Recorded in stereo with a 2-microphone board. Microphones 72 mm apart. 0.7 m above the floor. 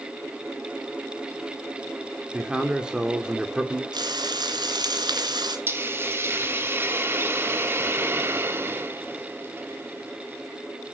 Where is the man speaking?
10° right (ahead or behind), 1.5 m.